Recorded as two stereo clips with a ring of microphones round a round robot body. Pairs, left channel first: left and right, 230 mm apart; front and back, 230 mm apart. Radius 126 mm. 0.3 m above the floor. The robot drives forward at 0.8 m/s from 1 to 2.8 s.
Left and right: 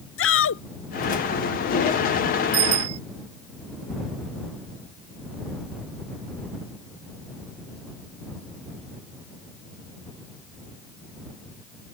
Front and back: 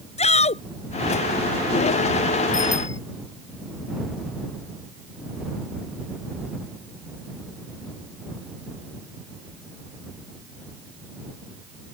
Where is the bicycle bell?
75° right; by 3.0 s 80° right.